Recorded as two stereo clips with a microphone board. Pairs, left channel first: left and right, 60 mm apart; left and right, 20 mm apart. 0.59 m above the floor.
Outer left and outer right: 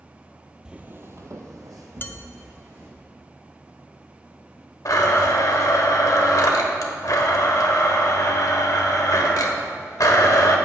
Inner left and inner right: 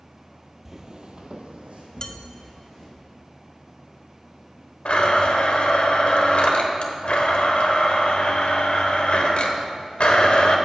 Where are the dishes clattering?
35° left (ahead or behind), 0.5 m.